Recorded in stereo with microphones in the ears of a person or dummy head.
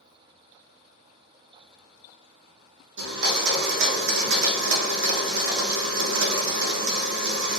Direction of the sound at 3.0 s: 70° right (ahead or behind).